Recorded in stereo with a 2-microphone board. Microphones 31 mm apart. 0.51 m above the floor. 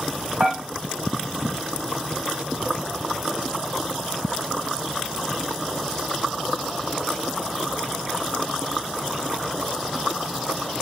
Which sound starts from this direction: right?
Dishes clattering, at 0.4 s.